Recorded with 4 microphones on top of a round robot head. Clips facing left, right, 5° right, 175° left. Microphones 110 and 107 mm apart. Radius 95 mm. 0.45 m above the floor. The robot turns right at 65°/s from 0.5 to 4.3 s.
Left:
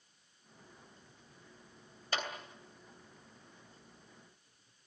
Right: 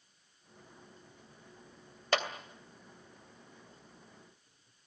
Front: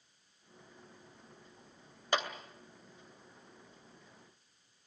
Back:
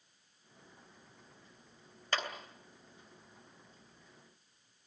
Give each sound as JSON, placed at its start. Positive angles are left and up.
{"t": 2.1, "sound": "a clap", "azimuth_deg": -80, "distance_m": 2.5}